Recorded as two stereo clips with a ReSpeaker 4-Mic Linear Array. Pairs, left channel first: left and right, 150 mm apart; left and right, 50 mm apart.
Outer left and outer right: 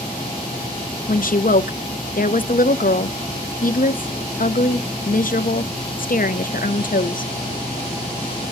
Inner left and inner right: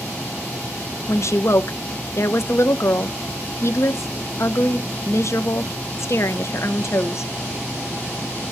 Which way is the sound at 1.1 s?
65° left (ahead or behind).